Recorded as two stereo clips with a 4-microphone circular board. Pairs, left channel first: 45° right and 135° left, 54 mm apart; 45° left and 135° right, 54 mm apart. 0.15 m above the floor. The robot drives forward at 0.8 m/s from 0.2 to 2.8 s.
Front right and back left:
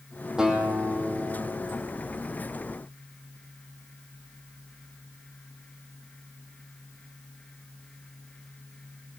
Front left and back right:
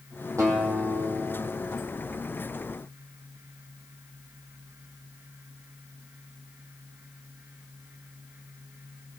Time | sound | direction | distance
0.4 | a guitar | 145° right | 3 m